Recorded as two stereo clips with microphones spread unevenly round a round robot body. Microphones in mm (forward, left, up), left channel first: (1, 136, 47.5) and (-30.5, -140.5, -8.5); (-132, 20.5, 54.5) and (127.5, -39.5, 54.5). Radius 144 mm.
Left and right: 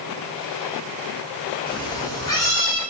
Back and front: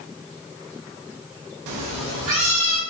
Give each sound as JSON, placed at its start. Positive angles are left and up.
{"t": 1.7, "sound": "a cat meowing", "azimuth_deg": 10, "distance_m": 0.5}